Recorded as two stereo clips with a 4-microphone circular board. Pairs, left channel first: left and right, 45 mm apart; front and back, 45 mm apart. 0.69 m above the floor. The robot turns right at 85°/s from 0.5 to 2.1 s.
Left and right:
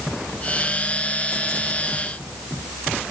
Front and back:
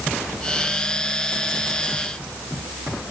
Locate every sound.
Only background noise.